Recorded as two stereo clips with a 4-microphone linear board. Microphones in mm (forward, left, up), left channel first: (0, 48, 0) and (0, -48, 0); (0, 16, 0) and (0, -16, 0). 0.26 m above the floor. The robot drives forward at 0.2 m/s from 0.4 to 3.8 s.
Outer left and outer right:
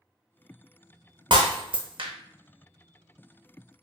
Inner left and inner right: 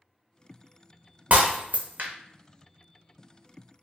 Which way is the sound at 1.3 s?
55° right (ahead or behind).